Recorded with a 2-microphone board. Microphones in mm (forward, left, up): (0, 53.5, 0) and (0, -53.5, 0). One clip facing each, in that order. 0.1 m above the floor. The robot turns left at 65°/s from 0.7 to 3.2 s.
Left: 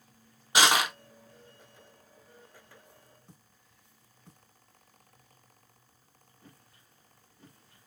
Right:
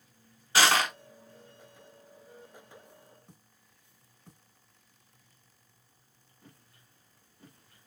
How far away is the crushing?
About 1.0 m.